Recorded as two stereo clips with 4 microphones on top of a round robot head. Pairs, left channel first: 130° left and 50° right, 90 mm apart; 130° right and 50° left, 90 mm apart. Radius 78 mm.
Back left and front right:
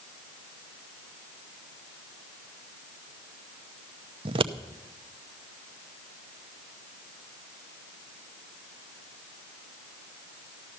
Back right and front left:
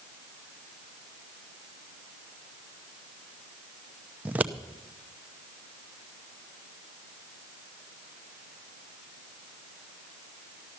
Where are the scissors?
20° right, 0.7 m.